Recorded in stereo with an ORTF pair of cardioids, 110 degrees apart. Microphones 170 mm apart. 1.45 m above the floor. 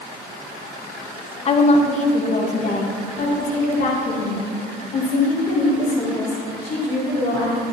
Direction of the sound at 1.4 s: 35° left.